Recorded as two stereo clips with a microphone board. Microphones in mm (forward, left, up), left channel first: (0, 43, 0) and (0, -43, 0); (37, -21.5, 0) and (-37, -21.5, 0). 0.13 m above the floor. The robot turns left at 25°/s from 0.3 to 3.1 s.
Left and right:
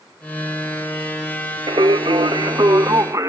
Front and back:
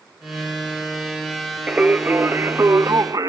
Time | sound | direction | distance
1.7 | singing | 105° right | 0.7 m